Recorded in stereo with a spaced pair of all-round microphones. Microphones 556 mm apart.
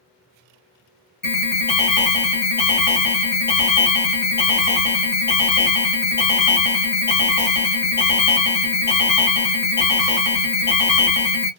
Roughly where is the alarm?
Left.